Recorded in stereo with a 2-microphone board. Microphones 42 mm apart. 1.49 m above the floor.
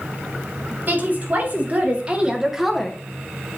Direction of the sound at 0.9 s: 45° right (ahead or behind).